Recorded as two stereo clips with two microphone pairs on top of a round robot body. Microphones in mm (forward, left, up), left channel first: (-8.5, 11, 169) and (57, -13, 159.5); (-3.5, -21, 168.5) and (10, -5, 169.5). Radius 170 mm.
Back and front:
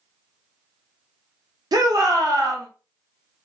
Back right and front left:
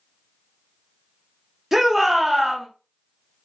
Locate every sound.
1.7 s a shout: 25° right, 1.5 m